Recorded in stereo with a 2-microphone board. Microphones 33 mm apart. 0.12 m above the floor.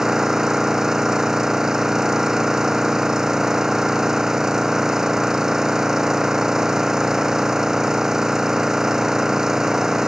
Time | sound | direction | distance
0.0 | an engine running | 15° right (ahead or behind) | ?